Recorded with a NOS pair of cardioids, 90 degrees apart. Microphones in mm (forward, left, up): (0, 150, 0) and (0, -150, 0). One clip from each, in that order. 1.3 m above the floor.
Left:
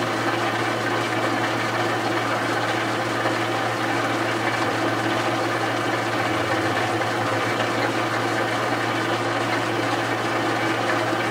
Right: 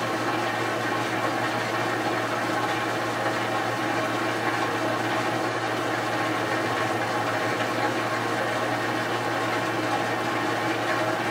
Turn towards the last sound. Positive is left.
turn(degrees=35)